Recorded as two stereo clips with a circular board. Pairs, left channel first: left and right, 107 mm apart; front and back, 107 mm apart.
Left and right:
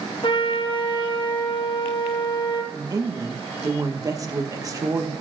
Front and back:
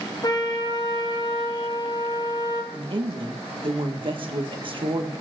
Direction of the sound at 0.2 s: 50° left.